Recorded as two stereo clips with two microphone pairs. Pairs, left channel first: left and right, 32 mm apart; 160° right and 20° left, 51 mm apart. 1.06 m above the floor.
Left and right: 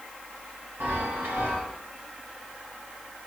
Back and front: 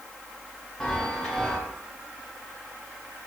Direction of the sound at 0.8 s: 85° right.